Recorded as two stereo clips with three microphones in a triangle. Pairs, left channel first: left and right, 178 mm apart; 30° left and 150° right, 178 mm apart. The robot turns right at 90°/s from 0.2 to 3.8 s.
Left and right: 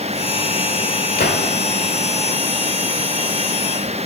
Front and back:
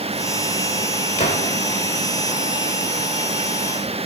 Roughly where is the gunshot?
Ahead left.